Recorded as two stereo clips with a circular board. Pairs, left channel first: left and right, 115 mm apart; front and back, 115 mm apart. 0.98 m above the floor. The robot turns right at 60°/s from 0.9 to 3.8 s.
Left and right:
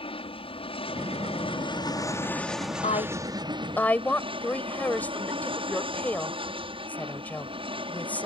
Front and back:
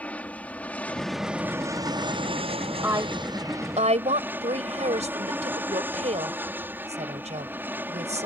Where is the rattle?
No rattle in this recording.